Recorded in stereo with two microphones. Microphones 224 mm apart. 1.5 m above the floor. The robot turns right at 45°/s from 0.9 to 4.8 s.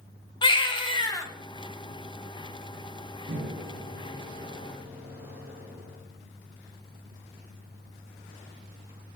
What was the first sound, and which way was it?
A baby crying, 20° left (ahead or behind).